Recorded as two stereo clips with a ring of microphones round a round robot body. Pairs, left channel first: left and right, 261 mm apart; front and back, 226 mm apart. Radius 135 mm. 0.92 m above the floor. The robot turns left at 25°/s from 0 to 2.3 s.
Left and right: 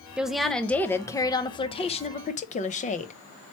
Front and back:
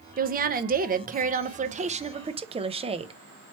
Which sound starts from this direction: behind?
A woman speaking, at 0.2 s.